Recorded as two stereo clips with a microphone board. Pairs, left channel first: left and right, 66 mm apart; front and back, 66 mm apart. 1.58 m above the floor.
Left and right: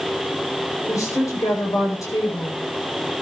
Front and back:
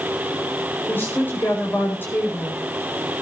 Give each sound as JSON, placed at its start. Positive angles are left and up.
{"t": 0.9, "sound": "a woman speaking", "azimuth_deg": 60, "distance_m": 8.0}